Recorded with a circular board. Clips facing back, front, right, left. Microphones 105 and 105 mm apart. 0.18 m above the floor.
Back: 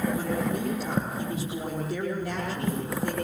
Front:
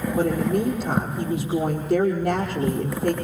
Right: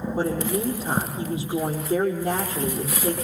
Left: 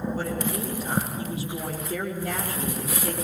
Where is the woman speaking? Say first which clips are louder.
Front 7 dB, right 4 dB; 25° right, 5 m.